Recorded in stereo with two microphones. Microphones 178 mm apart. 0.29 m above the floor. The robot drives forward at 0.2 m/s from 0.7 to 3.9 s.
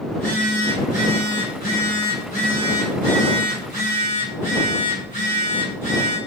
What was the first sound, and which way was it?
A phone buzzing, 50° left (ahead or behind).